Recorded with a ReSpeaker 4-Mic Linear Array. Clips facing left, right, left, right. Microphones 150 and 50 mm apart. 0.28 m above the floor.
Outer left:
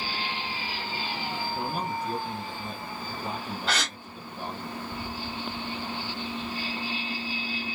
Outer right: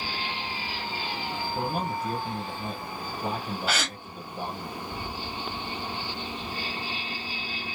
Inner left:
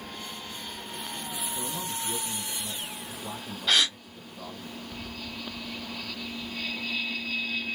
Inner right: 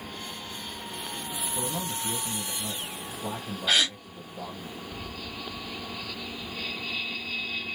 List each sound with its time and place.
1.6 s a man speaking: 45° right (ahead or behind), 1.5 m
3.7 s a gasp: 5° right (ahead or behind), 1.7 m